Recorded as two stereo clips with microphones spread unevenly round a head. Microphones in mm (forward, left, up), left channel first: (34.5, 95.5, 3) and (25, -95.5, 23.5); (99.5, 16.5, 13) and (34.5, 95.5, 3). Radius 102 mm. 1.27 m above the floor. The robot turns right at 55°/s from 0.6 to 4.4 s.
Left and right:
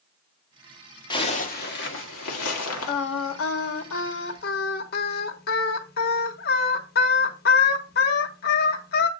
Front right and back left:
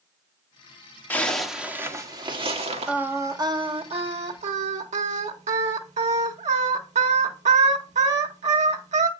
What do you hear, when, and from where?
1.1 s a zipper: 20° left, 1.6 m; by 2.9 s 120° left, 1.6 m
2.9 s singing: 50° left, 1.2 m; by 9.1 s 135° left, 1.2 m